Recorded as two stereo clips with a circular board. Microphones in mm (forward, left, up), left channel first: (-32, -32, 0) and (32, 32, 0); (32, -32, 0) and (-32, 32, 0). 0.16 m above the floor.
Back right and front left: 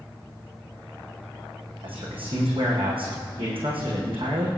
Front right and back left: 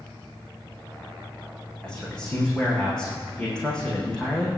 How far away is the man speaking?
About 8.5 m.